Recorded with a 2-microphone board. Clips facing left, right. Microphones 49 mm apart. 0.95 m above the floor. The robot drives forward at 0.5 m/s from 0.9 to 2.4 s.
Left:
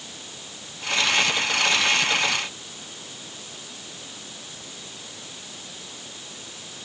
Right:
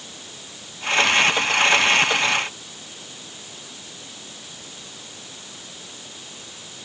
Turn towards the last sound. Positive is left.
No sound to turn to.